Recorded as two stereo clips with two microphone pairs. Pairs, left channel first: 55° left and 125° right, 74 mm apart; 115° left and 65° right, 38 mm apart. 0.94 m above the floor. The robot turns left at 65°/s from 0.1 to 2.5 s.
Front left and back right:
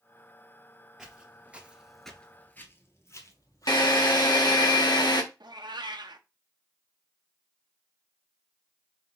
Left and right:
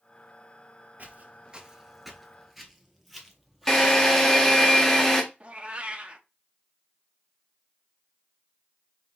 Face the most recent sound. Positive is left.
turn(degrees=-125)